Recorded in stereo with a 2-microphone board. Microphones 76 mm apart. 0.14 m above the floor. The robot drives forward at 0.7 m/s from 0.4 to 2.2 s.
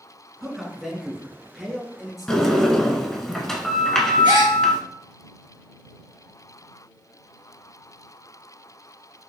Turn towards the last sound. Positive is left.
turn(degrees=-75)  # may be behind; listen again after turning